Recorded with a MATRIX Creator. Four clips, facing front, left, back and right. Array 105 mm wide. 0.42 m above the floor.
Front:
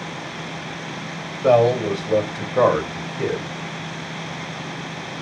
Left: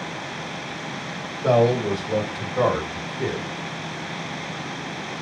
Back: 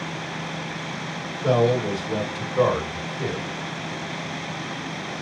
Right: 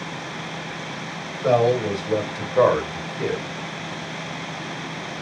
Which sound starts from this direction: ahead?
A man speaking, at 1.4 s.